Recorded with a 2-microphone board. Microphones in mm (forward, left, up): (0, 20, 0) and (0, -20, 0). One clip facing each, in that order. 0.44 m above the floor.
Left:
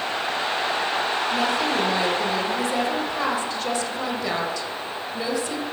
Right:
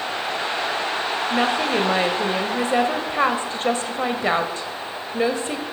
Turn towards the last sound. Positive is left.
turn(degrees=-35)  # may be behind; listen again after turning